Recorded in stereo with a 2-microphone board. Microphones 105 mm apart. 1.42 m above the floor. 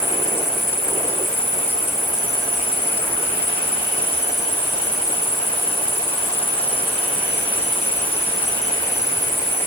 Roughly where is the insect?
Left.